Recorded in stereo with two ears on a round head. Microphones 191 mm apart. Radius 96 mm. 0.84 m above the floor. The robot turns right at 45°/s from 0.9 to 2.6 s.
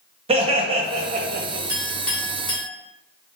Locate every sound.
0.3 s laughter: 150° right, 0.8 m; by 1.6 s 115° right, 0.8 m
1.7 s a clink: 15° right (ahead or behind), 1.3 m; by 2.7 s 30° left (ahead or behind), 1.3 m